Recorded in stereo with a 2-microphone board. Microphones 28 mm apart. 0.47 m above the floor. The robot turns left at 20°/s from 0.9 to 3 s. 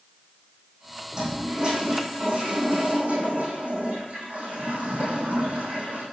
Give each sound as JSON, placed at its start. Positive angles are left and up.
{"t": 1.1, "sound": "a toilet flushing", "azimuth_deg": -30, "distance_m": 6.5}